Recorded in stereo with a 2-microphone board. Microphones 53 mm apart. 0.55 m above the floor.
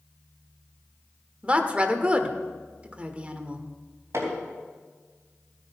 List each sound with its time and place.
1.4 s a woman speaking: 25° right (ahead or behind), 1.4 m
4.1 s hammering: 65° right (ahead or behind), 3.5 m